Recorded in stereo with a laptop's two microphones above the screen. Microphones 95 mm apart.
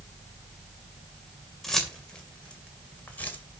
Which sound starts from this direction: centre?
Keys jangling, at 1.6 s.